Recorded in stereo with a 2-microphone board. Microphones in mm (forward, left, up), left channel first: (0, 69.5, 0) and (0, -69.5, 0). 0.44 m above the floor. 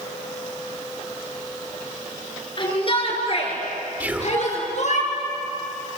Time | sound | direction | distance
2.6 | a shout | 40° left (ahead or behind) | 7.5 m
4.0 | whispering | 15° right (ahead or behind) | 1.5 m